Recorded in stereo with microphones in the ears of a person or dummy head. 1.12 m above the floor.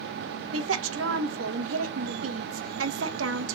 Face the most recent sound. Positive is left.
turn(degrees=-70)  # may be behind; listen again after turning